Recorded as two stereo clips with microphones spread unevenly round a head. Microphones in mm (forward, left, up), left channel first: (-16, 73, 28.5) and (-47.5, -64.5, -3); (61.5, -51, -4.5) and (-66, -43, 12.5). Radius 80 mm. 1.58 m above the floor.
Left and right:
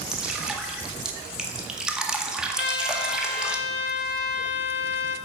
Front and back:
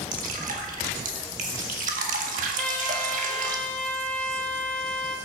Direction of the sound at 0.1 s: 165° left.